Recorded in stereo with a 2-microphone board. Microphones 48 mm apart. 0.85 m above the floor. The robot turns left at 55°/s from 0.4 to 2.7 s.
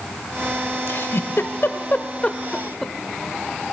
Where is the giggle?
55° left (ahead or behind), 0.8 m; by 2.9 s 5° left (ahead or behind), 0.8 m.